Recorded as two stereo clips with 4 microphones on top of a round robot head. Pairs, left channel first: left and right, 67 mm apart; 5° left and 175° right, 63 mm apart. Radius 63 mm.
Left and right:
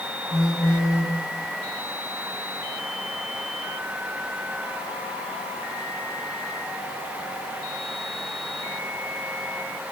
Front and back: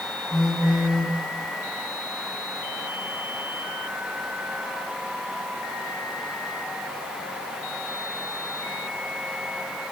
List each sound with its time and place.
0.3 s a phone buzzing: 90° left, 1.9 m